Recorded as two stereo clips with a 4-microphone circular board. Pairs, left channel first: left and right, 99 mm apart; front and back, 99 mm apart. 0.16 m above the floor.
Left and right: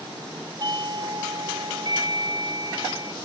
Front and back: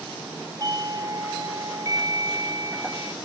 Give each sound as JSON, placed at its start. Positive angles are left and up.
{"t": 0.6, "sound": "a doorbell", "azimuth_deg": -130}